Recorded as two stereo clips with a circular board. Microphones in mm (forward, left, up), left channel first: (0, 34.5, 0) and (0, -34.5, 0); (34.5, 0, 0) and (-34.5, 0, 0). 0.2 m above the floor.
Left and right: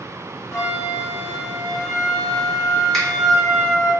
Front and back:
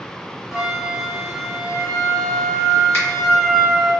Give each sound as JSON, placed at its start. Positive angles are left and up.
{"t": 0.5, "sound": "a flute", "azimuth_deg": 95, "distance_m": 1.6}
{"t": 2.9, "sound": "a finger snap", "azimuth_deg": 20, "distance_m": 1.7}